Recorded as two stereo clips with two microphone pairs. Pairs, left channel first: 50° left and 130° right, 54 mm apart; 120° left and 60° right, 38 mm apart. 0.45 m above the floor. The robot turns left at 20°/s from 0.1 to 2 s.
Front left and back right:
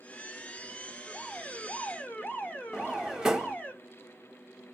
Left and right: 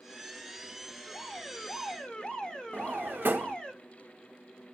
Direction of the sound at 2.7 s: 50° right.